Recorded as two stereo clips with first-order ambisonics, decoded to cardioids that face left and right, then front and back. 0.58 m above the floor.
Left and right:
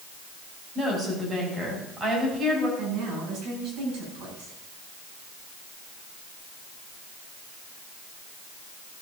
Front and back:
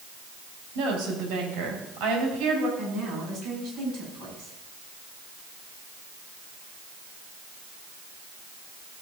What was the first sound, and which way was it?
A woman speaking, 160° right.